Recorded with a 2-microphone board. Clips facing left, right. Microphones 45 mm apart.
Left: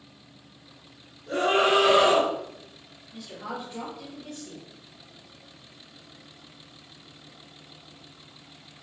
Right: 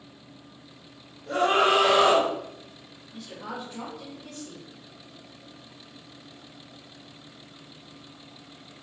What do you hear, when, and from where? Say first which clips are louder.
1.3 s a scream: right 1 dB; 55° right (ahead or behind), 1.5 m
3.1 s a woman speaking: left 1 dB; centre (ahead or behind), 1.1 m